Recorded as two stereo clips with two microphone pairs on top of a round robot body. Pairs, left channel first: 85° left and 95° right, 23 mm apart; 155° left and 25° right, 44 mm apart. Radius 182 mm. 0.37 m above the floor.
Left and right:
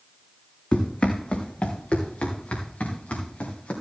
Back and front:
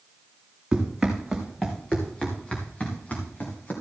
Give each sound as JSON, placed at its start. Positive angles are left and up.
{"t": 0.7, "sound": "running footsteps", "azimuth_deg": 50, "distance_m": 2.0}